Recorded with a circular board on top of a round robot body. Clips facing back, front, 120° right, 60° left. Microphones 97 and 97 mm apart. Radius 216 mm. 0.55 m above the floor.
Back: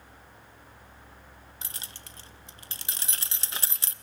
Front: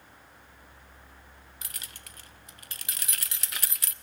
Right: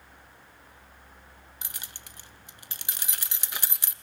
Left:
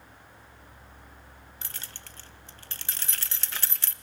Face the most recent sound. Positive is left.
turn(degrees=180)